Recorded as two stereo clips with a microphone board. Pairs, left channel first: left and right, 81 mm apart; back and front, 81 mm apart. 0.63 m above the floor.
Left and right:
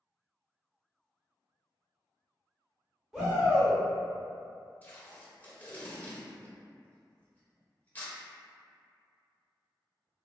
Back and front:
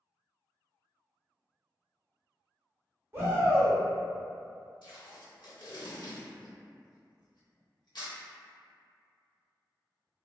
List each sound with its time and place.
3.1 s a shout: 10° right, 1.1 m
4.8 s tape being pulled: 160° left, 0.7 m